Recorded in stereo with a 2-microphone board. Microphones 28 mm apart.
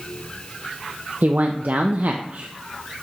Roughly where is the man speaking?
Right.